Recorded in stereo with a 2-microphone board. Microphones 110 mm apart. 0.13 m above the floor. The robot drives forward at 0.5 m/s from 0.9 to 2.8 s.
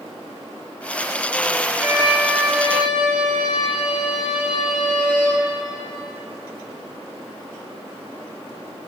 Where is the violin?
10° right (ahead or behind), 1.5 m.